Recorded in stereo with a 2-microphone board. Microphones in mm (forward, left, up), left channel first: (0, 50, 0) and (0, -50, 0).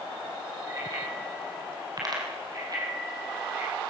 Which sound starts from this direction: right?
A bicycle bell, at 0.7 s.